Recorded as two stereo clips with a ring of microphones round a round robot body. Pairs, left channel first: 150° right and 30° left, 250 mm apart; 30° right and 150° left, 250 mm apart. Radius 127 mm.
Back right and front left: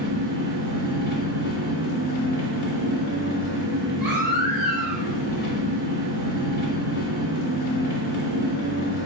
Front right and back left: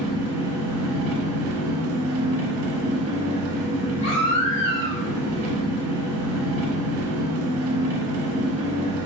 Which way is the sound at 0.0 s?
160° left.